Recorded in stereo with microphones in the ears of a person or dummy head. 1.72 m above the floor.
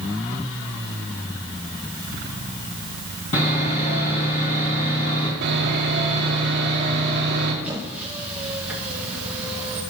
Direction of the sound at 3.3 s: 35° left (ahead or behind).